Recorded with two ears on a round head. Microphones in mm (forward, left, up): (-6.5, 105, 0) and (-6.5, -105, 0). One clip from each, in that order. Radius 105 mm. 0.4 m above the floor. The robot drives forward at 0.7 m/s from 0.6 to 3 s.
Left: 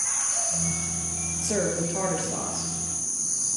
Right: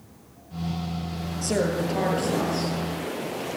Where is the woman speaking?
Centre (ahead or behind), 10 m.